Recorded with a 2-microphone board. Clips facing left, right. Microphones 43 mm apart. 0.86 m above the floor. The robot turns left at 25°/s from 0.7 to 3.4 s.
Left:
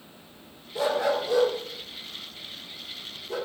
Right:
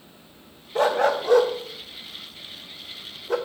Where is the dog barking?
50° right (ahead or behind), 1.1 m; by 3.4 s 60° right (ahead or behind), 1.1 m.